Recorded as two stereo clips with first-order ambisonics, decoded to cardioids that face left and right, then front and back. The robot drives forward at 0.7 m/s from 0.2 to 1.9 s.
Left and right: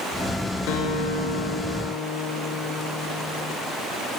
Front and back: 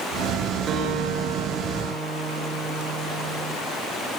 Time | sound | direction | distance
0.7 | a guitar | 120° left | 4.5 m